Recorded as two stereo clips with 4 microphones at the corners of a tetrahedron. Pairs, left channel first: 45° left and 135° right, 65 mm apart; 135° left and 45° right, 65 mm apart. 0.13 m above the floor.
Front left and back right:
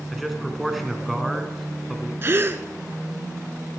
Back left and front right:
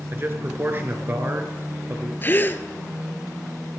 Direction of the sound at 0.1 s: 45° right.